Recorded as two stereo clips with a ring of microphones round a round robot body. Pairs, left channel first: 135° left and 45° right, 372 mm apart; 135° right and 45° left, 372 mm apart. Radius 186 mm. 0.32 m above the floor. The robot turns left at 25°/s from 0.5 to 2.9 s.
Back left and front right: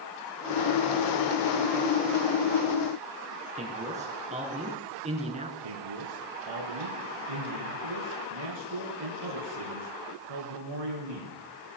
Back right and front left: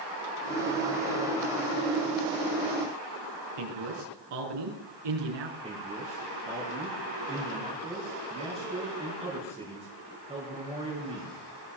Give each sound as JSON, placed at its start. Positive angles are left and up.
{"t": 3.6, "sound": "a man speaking", "azimuth_deg": 25, "distance_m": 4.0}
{"t": 5.6, "sound": "a man speaking", "azimuth_deg": -30, "distance_m": 4.5}